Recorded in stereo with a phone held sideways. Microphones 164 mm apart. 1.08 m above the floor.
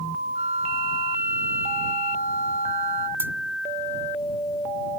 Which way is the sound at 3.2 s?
10° right (ahead or behind).